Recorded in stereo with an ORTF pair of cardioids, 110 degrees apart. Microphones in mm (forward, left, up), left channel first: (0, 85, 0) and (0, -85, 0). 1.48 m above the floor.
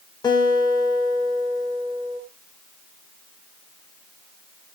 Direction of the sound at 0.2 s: 25° left.